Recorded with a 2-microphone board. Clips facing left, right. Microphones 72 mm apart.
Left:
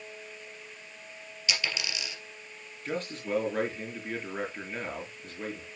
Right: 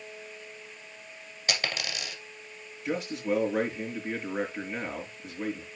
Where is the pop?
No pop in this recording.